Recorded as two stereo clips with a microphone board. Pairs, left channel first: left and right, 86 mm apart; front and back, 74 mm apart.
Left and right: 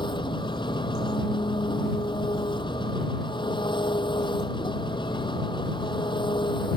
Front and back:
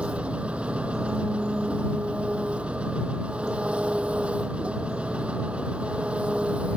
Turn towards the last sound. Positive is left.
turn(degrees=105)